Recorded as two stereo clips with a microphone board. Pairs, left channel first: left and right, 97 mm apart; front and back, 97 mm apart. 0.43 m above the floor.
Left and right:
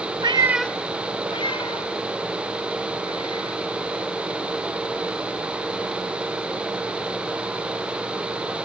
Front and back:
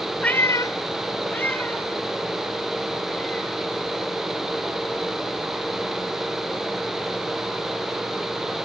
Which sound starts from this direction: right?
A cat meowing, at 0.2 s.